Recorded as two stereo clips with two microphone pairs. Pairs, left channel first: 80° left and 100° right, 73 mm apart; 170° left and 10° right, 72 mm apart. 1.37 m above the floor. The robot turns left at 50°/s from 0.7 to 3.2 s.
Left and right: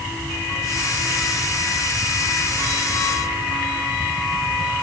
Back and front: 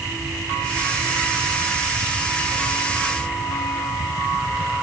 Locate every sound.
Only background noise.